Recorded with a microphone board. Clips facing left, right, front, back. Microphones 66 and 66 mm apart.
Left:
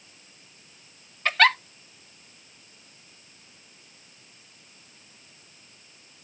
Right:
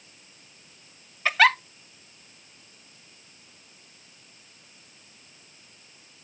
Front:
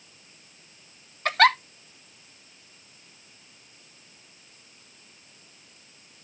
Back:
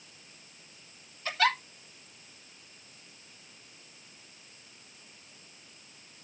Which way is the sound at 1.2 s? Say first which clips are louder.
Right 1 dB, front 8 dB; 5° right.